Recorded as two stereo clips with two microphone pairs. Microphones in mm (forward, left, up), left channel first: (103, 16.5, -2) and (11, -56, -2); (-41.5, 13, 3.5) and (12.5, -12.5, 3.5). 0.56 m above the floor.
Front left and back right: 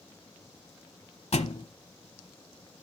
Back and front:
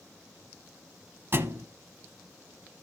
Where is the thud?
20° left, 0.9 m.